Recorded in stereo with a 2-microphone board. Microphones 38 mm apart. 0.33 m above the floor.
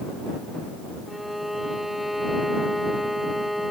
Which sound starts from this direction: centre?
A violin, at 1.1 s.